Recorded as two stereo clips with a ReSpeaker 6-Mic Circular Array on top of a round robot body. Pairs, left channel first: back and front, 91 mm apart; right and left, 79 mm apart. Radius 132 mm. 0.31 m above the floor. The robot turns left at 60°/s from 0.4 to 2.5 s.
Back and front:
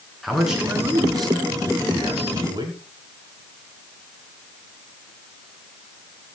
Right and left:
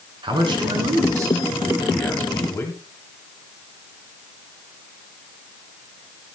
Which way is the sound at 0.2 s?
90° left.